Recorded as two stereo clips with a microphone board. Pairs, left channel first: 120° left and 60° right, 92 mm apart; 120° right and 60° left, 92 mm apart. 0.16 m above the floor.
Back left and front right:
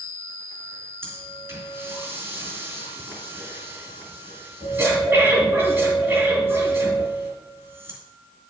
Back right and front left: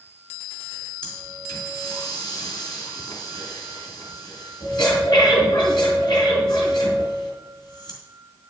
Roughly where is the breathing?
Behind right.